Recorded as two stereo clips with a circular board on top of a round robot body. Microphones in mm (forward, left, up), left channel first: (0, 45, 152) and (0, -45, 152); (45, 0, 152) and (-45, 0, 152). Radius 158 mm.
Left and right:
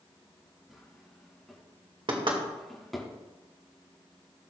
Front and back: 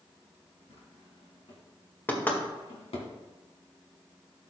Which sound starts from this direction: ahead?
A drawer, at 0.7 s.